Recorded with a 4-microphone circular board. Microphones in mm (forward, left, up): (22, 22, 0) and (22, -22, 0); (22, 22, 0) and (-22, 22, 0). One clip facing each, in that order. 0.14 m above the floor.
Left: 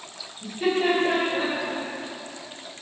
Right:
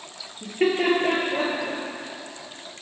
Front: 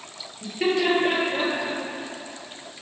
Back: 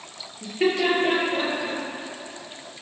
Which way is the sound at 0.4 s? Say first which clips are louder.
Right 1 dB, back 1 dB; 110° right.